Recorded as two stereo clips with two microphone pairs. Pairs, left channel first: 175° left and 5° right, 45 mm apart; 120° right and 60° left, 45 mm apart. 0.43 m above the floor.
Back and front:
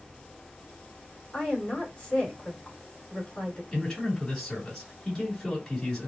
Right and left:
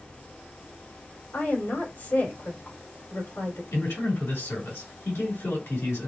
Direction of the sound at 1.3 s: 120° right.